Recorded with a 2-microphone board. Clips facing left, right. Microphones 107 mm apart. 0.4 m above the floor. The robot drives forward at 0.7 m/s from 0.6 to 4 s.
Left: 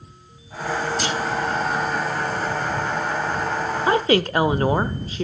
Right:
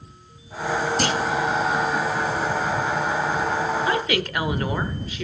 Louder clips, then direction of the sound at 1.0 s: Right 2 dB; 55° right (ahead or behind).